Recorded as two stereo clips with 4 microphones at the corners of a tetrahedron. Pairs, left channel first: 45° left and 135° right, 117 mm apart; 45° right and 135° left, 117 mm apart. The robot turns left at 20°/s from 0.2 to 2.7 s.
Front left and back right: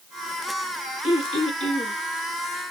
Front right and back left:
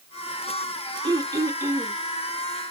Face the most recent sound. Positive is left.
turn(degrees=50)